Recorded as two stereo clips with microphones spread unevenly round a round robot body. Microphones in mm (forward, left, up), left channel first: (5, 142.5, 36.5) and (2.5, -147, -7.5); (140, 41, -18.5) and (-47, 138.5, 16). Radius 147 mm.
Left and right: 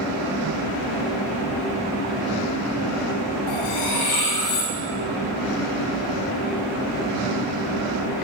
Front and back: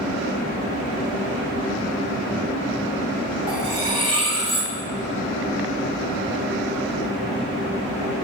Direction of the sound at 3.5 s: 90° left.